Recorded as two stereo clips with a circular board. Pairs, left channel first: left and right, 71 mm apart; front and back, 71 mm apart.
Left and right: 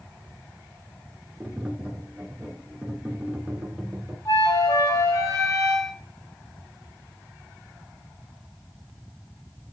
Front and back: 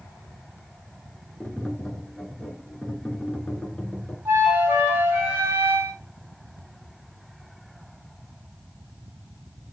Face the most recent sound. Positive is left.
turn(degrees=125)